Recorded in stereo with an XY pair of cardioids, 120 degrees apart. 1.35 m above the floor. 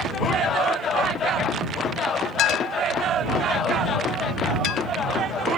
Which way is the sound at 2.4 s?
70° left.